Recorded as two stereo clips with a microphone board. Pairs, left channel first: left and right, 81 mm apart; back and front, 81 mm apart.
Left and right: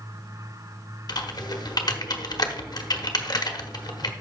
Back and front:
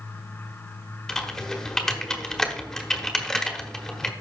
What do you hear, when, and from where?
1.1 s typing on a keyboard: 95° left, 1.2 m